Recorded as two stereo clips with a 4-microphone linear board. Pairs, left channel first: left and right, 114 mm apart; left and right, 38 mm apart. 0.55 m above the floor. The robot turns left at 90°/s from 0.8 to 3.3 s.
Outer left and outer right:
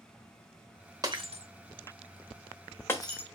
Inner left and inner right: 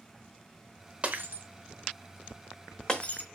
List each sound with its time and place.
1.0 s breaking glass: 30° right (ahead or behind), 0.9 m; by 3.2 s 50° left (ahead or behind), 0.9 m